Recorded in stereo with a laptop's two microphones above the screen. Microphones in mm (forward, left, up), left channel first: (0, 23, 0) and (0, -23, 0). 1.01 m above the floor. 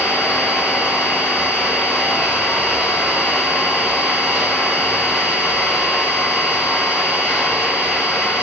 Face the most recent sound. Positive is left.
turn(degrees=65)  # may be behind; listen again after turning